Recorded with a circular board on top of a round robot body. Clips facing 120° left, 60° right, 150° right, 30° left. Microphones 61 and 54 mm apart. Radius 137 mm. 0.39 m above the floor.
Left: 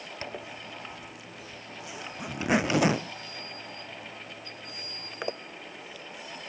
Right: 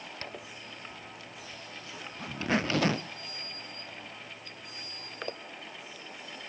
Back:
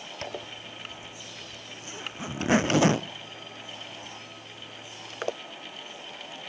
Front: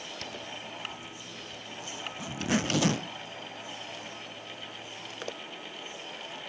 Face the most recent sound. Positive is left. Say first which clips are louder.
# left 4 dB, back 6 dB
turn(degrees=-175)